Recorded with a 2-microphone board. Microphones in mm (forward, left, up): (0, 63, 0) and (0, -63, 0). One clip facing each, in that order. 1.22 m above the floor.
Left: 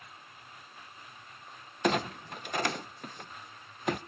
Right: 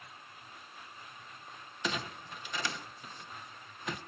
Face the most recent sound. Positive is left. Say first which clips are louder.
# left 9 dB
turn(degrees=55)  # may be behind; listen again after turning